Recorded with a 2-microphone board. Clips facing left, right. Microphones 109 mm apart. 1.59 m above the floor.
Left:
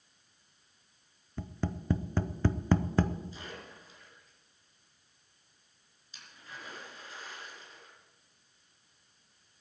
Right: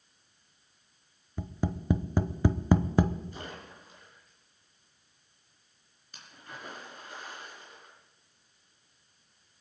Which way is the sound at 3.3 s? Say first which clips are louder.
Right 3 dB; 55° right (ahead or behind).